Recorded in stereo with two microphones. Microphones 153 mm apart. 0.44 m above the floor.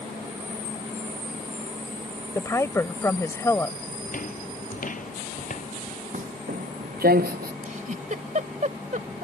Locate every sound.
2.4 s a woman speaking: 20° left (ahead or behind)
4.0 s footsteps: 60° left (ahead or behind); by 6.0 s 55° left (ahead or behind)
6.1 s footsteps: 55° right (ahead or behind); by 7.5 s 80° right
7.6 s a giggle: 55° right (ahead or behind)